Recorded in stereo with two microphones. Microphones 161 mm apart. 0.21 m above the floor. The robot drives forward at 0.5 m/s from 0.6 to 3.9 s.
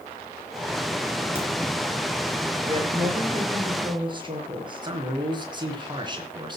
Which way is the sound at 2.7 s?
35° right (ahead or behind).